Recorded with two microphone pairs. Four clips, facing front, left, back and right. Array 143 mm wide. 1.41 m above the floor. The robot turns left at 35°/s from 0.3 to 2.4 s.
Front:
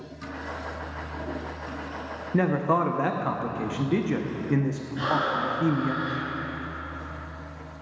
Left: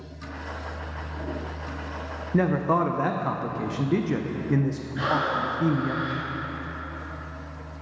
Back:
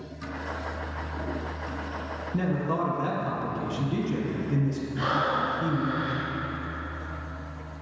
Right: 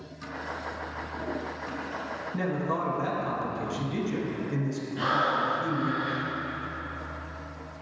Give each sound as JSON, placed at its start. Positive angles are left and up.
{"t": 2.3, "sound": "a man speaking", "azimuth_deg": 45, "distance_m": 0.6}
{"t": 5.0, "sound": "breathing", "azimuth_deg": 75, "distance_m": 3.0}